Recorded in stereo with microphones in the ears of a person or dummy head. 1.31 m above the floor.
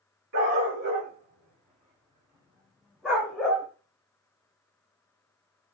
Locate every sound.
0.3 s a dog barking: 65° right (ahead or behind), 1.9 m; by 3.7 s 5° left (ahead or behind), 2.5 m